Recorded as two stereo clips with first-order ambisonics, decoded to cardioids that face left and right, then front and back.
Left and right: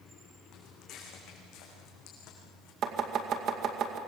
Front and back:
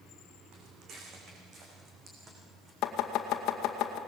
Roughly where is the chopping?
Ahead right.